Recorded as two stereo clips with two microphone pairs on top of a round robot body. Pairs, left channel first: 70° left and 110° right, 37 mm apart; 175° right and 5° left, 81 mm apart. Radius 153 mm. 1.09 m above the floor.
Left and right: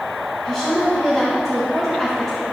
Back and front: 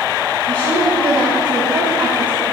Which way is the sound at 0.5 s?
10° right.